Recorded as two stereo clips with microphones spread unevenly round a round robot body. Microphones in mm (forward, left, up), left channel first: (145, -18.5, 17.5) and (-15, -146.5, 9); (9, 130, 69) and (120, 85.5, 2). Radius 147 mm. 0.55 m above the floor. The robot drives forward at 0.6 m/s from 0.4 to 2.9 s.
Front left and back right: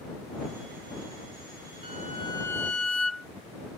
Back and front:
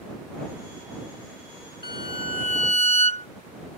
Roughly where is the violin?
Left.